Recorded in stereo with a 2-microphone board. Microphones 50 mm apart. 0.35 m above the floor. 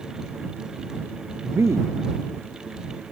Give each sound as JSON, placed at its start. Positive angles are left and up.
{"t": 1.4, "sound": "a man speaking", "side_deg": -65}